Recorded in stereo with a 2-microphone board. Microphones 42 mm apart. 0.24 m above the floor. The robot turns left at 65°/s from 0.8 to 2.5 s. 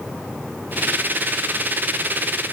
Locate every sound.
Only background noise.